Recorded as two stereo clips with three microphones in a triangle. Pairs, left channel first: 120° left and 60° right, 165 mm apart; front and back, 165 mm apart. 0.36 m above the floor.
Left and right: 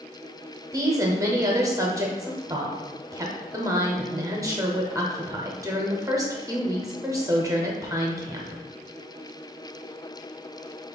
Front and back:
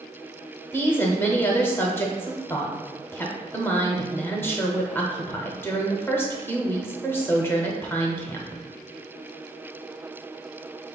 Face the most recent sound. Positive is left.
turn(degrees=-50)